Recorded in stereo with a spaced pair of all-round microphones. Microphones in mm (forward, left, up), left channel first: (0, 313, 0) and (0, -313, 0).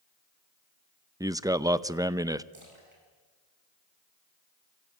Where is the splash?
50° right (ahead or behind), 8.5 m.